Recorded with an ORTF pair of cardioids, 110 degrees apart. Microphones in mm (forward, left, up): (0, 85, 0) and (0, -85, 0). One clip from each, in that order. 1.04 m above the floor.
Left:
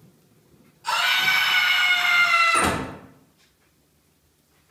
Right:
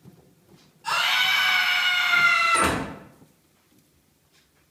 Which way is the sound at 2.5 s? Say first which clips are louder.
Left 1 dB; 5° left.